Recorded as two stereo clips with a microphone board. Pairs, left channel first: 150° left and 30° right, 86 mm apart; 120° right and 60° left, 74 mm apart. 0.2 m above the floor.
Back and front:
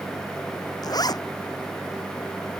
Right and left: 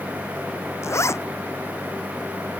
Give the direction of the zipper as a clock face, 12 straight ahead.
6 o'clock.